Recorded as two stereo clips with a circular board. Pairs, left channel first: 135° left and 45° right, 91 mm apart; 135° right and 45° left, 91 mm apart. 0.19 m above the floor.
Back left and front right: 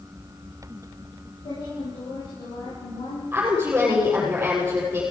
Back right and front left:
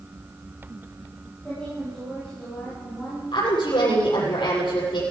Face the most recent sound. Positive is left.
turn(degrees=-115)